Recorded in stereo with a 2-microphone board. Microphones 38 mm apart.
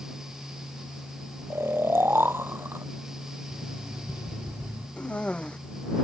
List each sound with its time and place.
1.5 s snoring: 80° right
3.5 s an alarm clock: 55° right (ahead or behind)
5.0 s a cough: 30° left (ahead or behind)